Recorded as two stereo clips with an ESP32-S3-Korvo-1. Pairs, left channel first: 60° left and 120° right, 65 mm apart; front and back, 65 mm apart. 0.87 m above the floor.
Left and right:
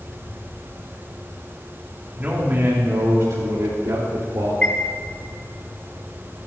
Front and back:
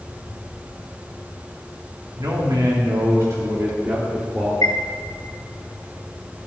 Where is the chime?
10° right, 2.5 m.